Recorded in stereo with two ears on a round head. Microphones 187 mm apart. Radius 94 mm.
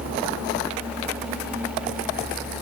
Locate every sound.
Only background noise.